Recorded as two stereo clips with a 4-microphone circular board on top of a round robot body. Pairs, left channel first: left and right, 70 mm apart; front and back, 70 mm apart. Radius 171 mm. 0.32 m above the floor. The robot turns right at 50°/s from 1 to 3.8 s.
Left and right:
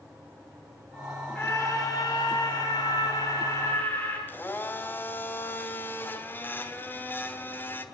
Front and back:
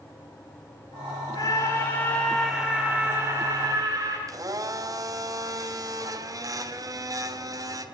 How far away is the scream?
About 8.5 m.